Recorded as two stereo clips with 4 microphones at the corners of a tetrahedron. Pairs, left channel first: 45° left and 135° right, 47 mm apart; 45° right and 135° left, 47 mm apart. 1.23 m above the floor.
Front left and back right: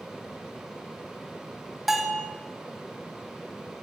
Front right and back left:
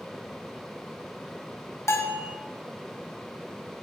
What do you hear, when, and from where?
1.9 s a bell: 50° right, 0.9 m